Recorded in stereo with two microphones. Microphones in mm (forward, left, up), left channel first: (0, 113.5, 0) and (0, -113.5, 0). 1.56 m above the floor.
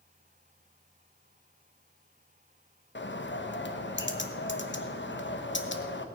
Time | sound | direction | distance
3.0 | a bird | 55° left (ahead or behind) | 1.1 m